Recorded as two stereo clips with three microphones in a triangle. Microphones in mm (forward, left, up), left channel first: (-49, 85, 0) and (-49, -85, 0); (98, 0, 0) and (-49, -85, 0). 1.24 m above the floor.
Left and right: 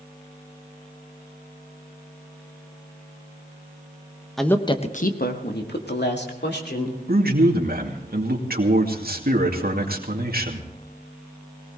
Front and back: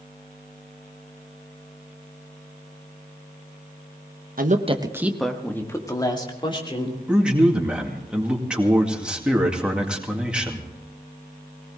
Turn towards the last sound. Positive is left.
turn(degrees=-65)